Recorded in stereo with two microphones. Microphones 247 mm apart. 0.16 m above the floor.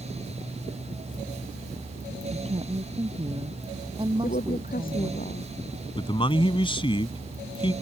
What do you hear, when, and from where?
2.3 s a woman speaking: 25° right (ahead or behind); by 5.2 s 20° right (ahead or behind)
4.2 s a woman speaking: 35° left (ahead or behind)
6.0 s a man speaking: 20° left (ahead or behind)